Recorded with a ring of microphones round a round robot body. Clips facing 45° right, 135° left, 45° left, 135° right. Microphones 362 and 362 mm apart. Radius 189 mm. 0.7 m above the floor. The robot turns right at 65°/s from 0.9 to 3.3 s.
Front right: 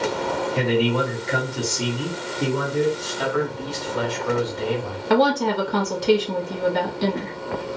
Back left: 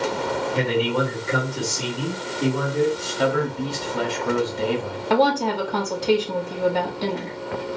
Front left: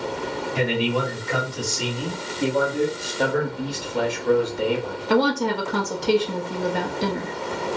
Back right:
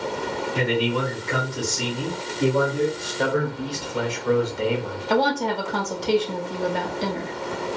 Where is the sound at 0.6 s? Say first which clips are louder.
Front right 2 dB, even; 170° left, 1.3 m; by 2.9 s 60° right, 1.3 m.